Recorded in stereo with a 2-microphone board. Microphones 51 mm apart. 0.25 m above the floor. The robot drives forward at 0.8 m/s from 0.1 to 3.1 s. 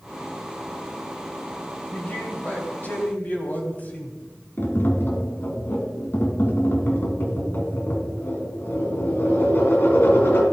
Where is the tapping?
45° left (ahead or behind), 1.8 m.